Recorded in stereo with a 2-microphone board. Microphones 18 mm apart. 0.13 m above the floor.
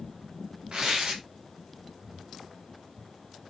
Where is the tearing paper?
50° right (ahead or behind), 5 m.